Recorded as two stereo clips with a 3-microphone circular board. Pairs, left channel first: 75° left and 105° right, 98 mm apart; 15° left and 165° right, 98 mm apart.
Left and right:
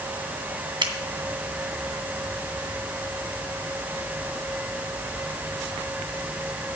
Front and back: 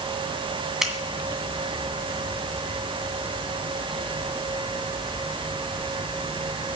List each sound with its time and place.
0.8 s a finger snap: 80° right, 2 m